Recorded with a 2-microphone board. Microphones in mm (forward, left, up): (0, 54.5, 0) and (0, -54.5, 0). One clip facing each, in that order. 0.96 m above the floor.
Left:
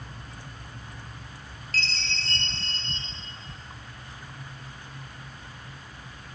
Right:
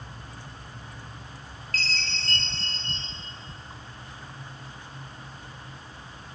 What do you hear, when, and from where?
1.7 s a chime: 50° right (ahead or behind), 4 m